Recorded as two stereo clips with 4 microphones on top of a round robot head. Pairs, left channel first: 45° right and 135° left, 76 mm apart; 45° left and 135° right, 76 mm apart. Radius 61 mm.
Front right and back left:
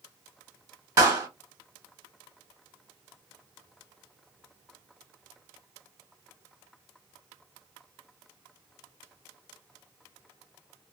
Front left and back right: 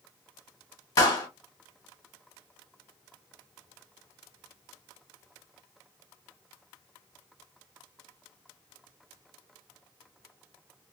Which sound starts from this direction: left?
A clap, at 1.0 s.